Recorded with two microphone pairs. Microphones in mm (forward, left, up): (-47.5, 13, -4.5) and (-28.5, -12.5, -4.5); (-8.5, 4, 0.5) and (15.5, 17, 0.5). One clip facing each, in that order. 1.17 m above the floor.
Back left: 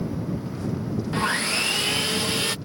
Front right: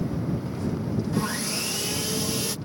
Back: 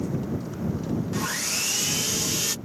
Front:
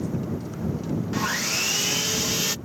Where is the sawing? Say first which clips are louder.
Back left 4 dB, front 3 dB; 100° left.